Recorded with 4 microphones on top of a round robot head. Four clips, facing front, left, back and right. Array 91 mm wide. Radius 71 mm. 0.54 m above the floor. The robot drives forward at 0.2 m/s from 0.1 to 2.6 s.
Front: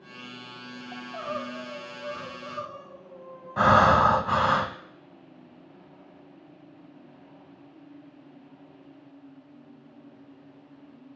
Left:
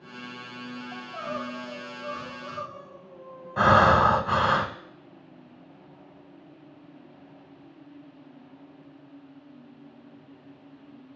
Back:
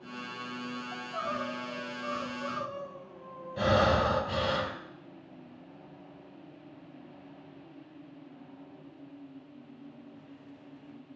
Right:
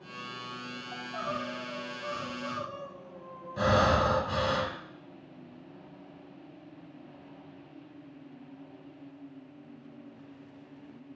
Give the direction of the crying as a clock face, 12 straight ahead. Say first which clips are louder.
Even, front 3 dB; 5 o'clock.